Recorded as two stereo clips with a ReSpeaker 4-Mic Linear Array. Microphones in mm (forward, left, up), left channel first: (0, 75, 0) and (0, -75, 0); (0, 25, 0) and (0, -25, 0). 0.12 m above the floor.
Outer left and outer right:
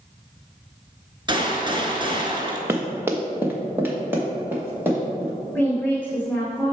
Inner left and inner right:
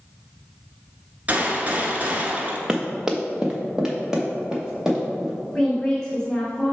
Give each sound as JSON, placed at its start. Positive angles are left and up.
{"t": 1.3, "sound": "a gunshot", "side_deg": -30, "distance_m": 1.2}
{"t": 2.7, "sound": "running footsteps", "side_deg": -15, "distance_m": 0.8}
{"t": 5.5, "sound": "a woman speaking", "side_deg": 15, "distance_m": 1.3}